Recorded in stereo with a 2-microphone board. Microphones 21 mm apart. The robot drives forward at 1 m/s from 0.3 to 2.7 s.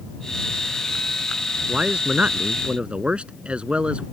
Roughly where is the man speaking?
Right.